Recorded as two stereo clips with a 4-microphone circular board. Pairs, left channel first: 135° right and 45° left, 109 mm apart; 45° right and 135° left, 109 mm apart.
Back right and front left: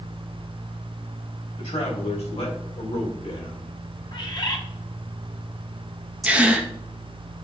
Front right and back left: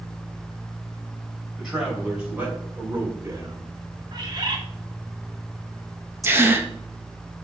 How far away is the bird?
About 1.2 m.